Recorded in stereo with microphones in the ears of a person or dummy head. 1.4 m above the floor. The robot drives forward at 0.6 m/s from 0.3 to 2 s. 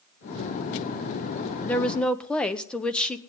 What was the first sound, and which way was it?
A woman speaking, 5° left (ahead or behind).